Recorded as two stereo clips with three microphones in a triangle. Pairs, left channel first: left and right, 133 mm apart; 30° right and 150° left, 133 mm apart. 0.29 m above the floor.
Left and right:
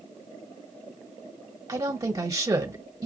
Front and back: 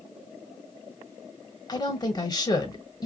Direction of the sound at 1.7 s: 55° right.